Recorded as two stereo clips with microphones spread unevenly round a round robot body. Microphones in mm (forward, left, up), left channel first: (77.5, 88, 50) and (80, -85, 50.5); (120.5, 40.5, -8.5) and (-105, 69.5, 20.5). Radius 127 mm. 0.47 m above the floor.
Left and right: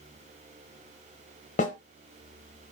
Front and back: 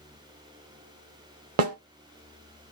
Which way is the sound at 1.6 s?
145° left.